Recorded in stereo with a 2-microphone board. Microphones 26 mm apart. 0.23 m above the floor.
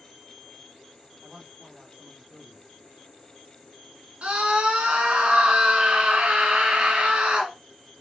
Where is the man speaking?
30° right (ahead or behind), 1.8 m.